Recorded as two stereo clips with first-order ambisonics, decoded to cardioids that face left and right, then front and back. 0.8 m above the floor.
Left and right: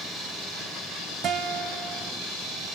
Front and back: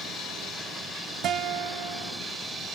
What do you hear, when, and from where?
1.2 s a guitar: 140° right, 0.9 m